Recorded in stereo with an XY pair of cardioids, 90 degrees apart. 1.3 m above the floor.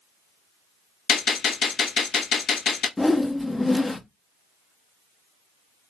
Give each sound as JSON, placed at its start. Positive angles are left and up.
{"t": 1.1, "sound": "a gunshot", "azimuth_deg": 65, "distance_m": 1.2}
{"t": 3.0, "sound": "a whoosh", "azimuth_deg": 15, "distance_m": 0.7}